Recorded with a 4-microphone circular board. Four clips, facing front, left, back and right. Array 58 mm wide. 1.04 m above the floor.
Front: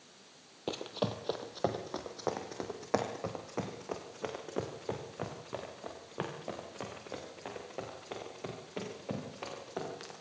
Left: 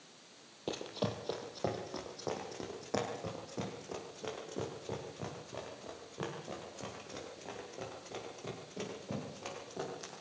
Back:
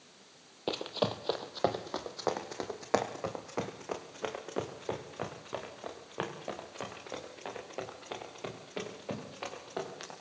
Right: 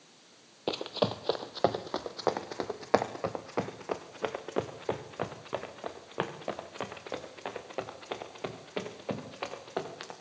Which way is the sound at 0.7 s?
115° right.